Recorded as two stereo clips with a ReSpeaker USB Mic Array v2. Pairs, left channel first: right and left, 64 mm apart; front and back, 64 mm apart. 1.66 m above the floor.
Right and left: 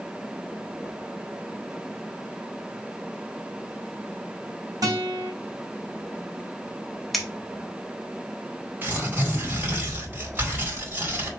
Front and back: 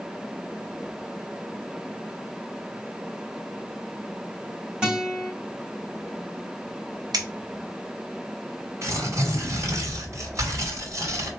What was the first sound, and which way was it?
A guitar, 110° left.